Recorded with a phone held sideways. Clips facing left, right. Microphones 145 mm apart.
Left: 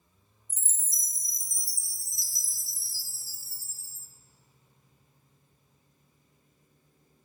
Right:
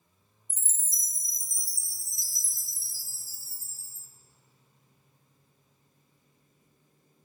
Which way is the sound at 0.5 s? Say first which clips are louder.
Even; 55° right (ahead or behind).